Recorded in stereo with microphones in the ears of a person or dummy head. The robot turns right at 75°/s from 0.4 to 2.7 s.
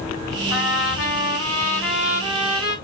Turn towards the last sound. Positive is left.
turn(degrees=-125)